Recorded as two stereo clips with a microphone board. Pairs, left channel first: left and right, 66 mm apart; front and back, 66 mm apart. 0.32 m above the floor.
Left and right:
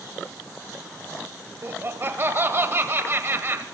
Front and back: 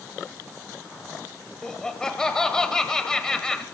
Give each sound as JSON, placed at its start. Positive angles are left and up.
{"t": 1.6, "sound": "laughter", "azimuth_deg": -75, "distance_m": 1.2}